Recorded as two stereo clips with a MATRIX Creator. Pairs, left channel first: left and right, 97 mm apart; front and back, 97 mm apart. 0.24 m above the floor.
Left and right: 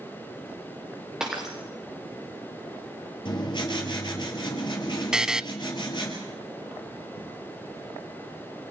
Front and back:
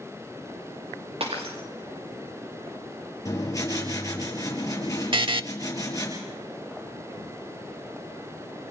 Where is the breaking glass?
175° right, 4.5 m.